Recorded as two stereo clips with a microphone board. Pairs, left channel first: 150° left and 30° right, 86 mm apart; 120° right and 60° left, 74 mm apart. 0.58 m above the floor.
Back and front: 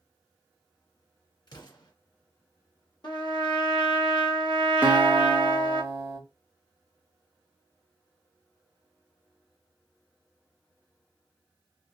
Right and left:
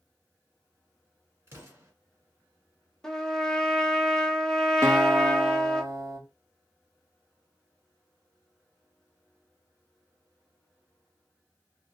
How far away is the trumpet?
About 0.8 m.